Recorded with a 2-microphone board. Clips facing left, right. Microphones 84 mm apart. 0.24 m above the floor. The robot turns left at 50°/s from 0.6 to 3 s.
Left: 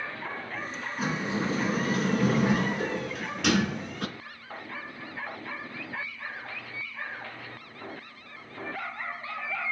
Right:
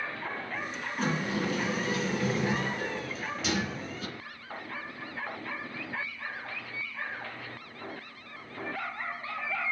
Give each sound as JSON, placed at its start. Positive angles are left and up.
{"t": 1.0, "sound": "a sliding door", "azimuth_deg": 175, "distance_m": 2.5}